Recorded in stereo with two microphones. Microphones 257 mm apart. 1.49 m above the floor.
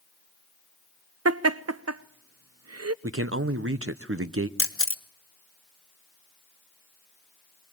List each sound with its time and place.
1.2 s laughter: 70° right (ahead or behind), 0.5 m
3.0 s a man speaking: 55° right (ahead or behind), 0.9 m
4.6 s a camera shutter: 55° left (ahead or behind), 1.4 m